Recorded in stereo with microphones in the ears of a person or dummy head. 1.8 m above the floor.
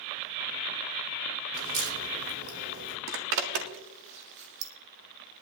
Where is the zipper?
65° right (ahead or behind), 1.8 m.